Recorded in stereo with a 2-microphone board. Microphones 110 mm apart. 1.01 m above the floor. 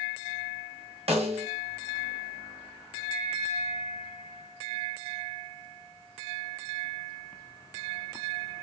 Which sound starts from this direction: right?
A snare drum, at 1.1 s.